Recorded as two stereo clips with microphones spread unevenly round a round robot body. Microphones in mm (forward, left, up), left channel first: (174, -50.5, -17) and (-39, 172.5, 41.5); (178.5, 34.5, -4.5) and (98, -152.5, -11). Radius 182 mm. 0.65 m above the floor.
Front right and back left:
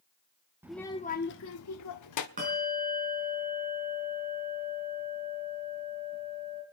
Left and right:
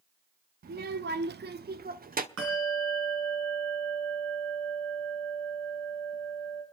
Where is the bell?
155° right, 3.5 m.